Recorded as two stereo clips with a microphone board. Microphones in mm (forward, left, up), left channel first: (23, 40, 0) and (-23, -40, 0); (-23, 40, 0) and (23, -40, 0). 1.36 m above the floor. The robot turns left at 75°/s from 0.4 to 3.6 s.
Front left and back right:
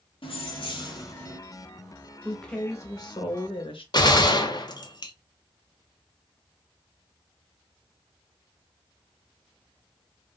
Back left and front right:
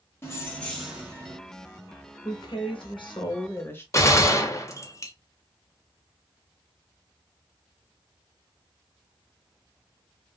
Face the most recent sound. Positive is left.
turn(degrees=75)